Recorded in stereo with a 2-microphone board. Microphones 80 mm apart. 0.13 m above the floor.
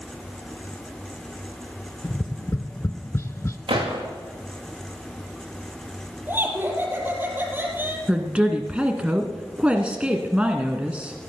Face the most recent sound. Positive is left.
turn(degrees=-15)  # may be behind; listen again after turning